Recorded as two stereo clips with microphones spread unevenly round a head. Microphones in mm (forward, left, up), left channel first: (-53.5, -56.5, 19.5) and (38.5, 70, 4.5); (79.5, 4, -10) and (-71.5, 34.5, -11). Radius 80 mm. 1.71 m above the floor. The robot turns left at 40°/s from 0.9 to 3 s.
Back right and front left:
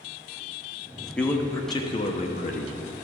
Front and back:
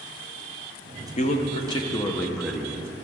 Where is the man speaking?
45° right, 0.9 m; by 2.8 s 110° right, 0.9 m.